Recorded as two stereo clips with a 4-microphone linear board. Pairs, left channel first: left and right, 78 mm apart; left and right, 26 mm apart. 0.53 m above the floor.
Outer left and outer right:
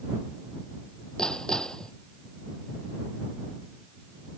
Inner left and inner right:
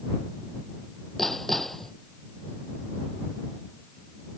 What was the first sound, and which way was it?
Hammering, 10° left (ahead or behind).